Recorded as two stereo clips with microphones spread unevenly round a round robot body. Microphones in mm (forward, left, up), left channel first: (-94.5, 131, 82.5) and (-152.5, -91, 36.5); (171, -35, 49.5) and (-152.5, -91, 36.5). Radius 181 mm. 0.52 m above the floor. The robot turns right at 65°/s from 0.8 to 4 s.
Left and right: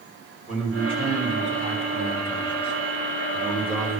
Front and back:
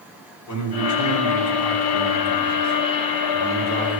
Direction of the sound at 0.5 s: 25° right.